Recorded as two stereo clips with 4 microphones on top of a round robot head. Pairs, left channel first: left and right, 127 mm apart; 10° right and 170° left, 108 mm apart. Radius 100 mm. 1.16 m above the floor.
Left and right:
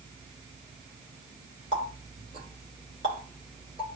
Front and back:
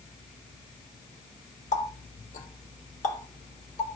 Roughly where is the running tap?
Ahead right.